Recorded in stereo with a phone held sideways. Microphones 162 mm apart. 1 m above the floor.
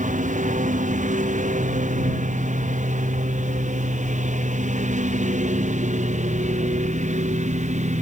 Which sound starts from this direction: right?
A lawn mower, at 0.0 s.